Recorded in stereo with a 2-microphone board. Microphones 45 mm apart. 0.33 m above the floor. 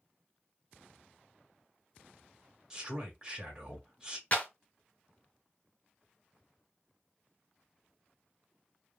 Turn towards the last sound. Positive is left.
turn(degrees=30)  # may be behind; listen again after turning